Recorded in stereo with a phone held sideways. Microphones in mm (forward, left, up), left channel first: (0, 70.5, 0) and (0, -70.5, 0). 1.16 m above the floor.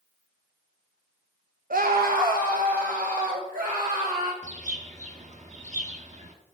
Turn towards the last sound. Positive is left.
turn(degrees=-60)  # may be behind; listen again after turning